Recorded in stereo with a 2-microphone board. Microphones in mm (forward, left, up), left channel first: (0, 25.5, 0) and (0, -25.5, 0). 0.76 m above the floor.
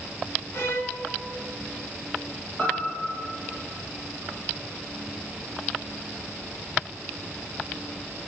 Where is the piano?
25° left (ahead or behind), 8.5 m.